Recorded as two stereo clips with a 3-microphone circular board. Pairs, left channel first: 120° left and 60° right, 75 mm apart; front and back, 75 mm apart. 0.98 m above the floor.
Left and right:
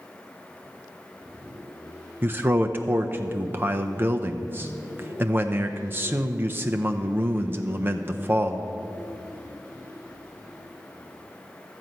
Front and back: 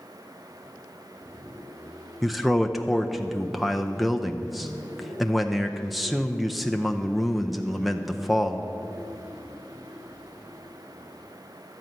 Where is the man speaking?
90° right, 0.5 m.